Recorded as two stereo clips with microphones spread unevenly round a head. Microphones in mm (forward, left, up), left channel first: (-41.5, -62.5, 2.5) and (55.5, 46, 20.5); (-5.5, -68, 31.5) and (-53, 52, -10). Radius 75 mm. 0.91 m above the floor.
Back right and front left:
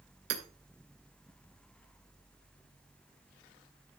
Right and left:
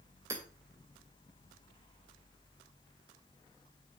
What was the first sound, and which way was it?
Hammering, 35° left.